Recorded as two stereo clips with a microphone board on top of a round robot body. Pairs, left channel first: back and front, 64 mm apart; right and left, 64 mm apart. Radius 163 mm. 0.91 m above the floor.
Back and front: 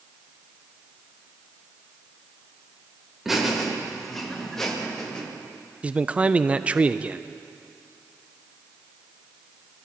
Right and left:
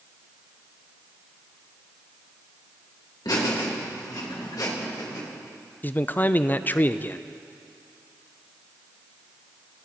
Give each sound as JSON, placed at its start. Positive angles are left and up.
{"t": 3.2, "sound": "laughter", "azimuth_deg": -85, "distance_m": 3.5}
{"t": 5.8, "sound": "a man speaking", "azimuth_deg": -55, "distance_m": 0.6}